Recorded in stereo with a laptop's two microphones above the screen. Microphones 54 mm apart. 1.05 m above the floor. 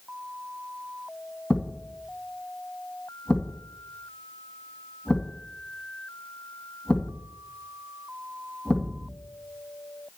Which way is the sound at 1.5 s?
15° left (ahead or behind).